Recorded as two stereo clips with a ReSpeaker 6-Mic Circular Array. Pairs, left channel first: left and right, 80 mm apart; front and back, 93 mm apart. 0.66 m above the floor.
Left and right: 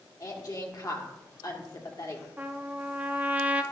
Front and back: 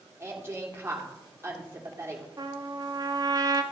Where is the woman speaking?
120° left, 1.9 m.